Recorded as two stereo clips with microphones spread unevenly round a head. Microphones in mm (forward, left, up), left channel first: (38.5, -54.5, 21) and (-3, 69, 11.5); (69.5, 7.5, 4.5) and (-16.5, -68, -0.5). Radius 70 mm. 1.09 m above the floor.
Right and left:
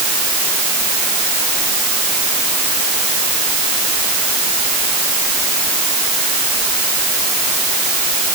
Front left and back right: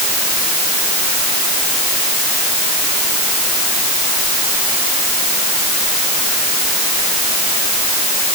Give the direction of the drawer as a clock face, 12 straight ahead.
No drawer in this recording.